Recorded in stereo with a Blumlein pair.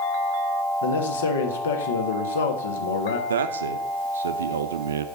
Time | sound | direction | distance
0.8 | a man speaking | 65° left | 1.4 m
3.3 | a man speaking | 65° right | 0.7 m